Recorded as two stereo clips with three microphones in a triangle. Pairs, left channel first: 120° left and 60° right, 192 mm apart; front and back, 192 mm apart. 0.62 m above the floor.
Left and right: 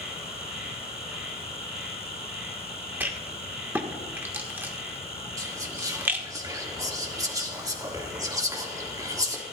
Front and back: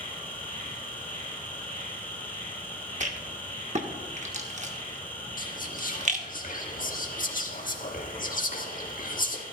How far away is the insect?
About 4 m.